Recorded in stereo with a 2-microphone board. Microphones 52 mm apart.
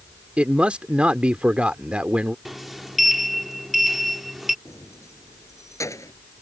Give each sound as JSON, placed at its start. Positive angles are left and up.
{"t": 0.4, "sound": "a man speaking", "side_deg": -25}
{"t": 2.5, "sound": "a sliding door", "side_deg": -5}
{"t": 4.7, "sound": "keys jangling", "side_deg": 80}